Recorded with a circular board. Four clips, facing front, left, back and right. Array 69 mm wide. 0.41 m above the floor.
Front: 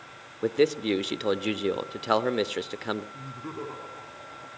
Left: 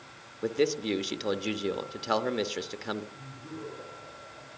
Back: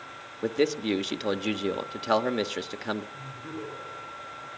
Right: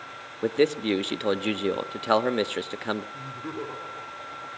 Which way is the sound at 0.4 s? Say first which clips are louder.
Right 5 dB, front 2 dB; 75° right.